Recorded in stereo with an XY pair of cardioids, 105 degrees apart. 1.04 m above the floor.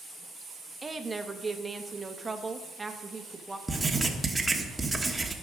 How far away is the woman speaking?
About 1.3 m.